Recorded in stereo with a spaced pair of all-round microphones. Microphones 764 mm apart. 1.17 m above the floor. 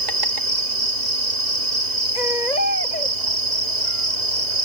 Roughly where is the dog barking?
I don't hear a dog barking.